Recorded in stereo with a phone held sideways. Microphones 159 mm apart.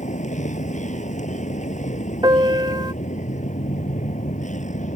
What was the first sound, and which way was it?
A vehicle, 50° left (ahead or behind).